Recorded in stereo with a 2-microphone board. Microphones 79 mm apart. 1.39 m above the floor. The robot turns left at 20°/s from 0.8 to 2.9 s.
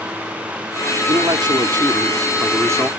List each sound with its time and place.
1.1 s a man speaking: 105° right; by 2.9 s 140° right